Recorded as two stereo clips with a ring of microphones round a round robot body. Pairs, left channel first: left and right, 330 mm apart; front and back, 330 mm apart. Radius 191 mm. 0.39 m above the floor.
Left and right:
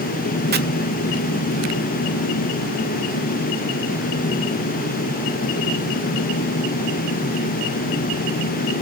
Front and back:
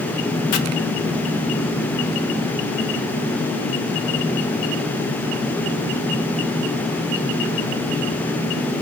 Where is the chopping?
35° right, 0.8 m.